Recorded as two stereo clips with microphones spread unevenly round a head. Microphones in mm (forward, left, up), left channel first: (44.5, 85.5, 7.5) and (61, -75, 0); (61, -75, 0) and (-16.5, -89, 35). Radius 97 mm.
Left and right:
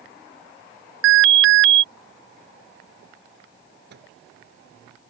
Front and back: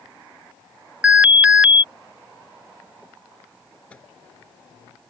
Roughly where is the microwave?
Ahead right.